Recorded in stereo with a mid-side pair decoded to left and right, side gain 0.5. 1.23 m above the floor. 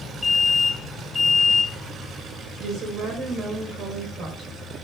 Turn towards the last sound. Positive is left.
turn(degrees=-65)